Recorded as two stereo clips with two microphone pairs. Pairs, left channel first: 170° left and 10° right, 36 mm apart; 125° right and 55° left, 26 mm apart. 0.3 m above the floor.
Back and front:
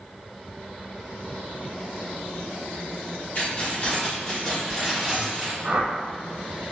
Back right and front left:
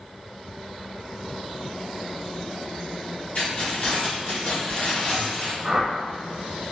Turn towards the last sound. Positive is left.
turn(degrees=10)